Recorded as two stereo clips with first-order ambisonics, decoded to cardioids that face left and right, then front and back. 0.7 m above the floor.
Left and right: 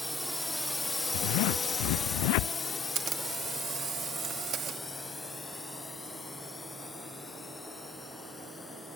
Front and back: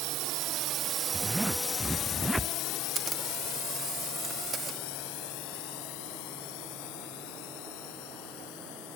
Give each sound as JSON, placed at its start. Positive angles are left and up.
{"t": 0.0, "sound": "a drone", "azimuth_deg": 180}
{"t": 1.1, "sound": "a zipper", "azimuth_deg": 95}
{"t": 3.0, "sound": "a camera shutter", "azimuth_deg": -130}